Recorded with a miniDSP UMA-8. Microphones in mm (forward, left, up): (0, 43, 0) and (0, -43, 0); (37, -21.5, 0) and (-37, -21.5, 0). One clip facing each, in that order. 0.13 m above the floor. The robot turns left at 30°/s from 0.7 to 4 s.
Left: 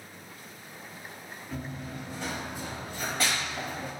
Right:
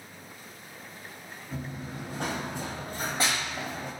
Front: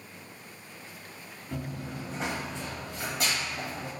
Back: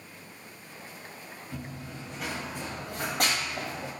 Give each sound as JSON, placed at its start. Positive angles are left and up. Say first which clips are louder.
{"t": 1.5, "sound": "running footsteps", "louder": "even, front 5 dB", "azimuth_deg": 0, "distance_m": 0.8}